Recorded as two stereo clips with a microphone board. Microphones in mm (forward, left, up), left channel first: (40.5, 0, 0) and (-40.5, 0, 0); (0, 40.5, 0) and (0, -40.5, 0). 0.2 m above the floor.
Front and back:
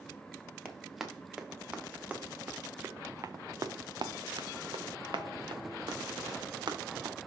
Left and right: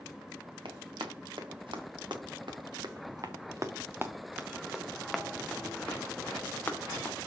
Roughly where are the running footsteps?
Right.